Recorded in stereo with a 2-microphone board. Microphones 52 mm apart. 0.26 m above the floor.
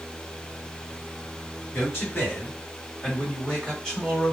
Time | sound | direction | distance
1.7 | a man speaking | 40° left (ahead or behind) | 2.0 m